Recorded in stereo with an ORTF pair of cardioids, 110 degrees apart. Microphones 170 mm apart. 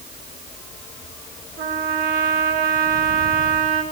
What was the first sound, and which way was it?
A trumpet, 70° right.